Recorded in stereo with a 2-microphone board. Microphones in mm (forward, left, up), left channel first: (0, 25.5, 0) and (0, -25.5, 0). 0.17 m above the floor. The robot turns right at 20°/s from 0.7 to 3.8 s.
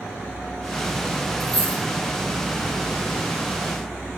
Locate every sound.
1.4 s a dropped coin: 30° left (ahead or behind), 1.5 m; by 1.8 s 20° left (ahead or behind), 1.5 m